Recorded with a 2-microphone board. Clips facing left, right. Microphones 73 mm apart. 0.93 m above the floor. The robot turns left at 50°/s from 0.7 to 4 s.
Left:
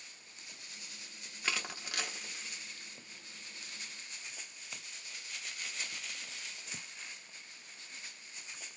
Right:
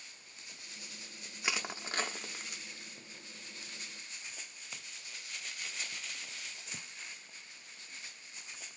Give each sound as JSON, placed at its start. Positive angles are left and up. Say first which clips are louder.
{"t": 1.4, "sound": "crushing", "louder": "right 1 dB", "side_deg": -10, "distance_m": 0.8}